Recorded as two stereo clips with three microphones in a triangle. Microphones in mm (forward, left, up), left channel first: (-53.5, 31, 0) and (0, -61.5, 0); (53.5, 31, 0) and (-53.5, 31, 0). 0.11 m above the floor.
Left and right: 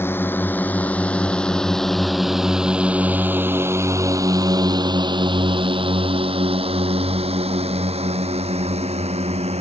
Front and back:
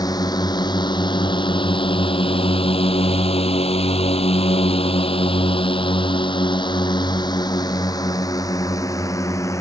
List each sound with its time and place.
0.0 s a drone: 50° left; by 9.6 s 60° right